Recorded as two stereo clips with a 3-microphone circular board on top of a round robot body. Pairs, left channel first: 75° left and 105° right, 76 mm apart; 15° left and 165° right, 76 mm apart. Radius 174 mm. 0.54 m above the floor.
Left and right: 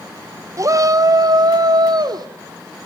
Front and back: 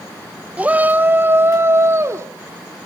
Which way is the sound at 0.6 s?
100° right.